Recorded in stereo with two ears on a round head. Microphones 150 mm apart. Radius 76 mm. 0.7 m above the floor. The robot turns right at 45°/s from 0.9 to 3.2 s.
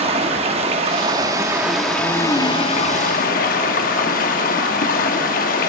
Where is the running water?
40° right, 0.9 m; by 5.7 s 65° left, 0.9 m.